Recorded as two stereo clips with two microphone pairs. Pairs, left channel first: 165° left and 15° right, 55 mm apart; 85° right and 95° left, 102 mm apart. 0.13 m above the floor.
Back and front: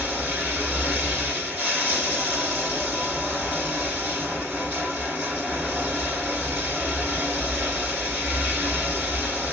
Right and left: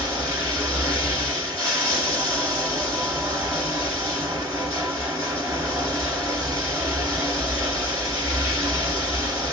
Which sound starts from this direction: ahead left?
Running water, at 0.0 s.